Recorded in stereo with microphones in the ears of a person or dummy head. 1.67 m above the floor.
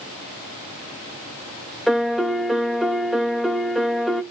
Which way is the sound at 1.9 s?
Centre (ahead or behind).